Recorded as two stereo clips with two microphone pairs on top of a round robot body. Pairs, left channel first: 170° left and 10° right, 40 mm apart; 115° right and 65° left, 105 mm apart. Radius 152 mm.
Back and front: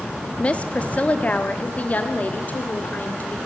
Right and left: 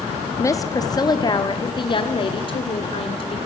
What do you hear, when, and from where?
0.4 s a woman speaking: 160° right, 1.5 m; by 3.4 s 145° right, 3 m